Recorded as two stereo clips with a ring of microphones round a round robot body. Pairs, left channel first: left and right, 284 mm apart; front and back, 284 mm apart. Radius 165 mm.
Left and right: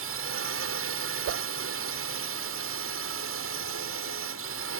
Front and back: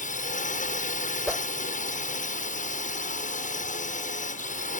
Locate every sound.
0.0 s a drone: 60° right
1.3 s a whoosh: 90° right